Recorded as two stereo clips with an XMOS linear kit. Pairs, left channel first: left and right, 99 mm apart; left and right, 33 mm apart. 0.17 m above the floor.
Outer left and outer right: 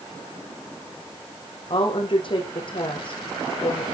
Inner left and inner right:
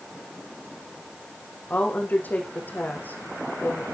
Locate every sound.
1.7 s a woman speaking: 60° left (ahead or behind), 8.5 m